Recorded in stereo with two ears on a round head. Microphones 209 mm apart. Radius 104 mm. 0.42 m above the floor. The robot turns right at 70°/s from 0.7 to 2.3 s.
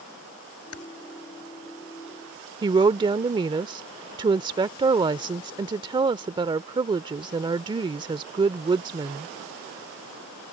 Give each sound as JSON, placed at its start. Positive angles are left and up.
{"t": 0.7, "sound": "typing on a keyboard", "side_deg": 65}
{"t": 2.6, "sound": "a woman speaking", "side_deg": -20}